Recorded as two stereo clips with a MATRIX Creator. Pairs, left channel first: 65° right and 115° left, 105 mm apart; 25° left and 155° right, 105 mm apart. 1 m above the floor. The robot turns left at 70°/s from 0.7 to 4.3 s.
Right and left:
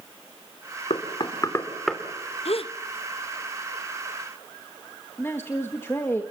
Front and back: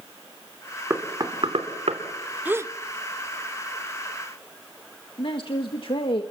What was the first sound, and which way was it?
Knocking, 85° right.